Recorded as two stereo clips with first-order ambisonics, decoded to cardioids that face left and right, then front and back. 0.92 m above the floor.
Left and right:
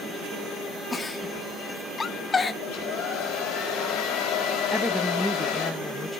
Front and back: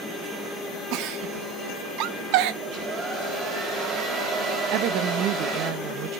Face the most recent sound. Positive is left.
turn(degrees=175)